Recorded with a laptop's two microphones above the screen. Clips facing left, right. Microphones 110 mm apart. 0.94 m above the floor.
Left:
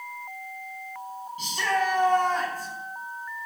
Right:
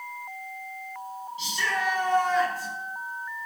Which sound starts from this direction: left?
A shout, at 1.4 s.